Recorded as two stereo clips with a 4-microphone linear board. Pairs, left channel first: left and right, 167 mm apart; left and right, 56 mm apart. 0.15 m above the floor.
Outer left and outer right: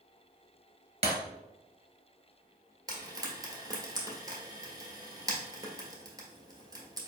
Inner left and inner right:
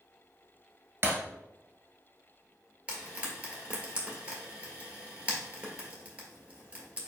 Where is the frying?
25° right (ahead or behind), 1.4 m.